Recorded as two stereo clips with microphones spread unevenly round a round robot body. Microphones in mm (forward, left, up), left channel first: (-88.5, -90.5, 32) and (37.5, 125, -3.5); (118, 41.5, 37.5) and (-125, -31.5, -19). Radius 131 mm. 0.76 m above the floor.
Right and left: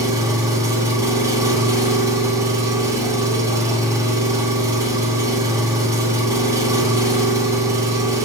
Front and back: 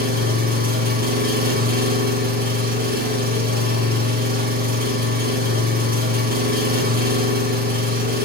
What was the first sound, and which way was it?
An engine running, 140° left.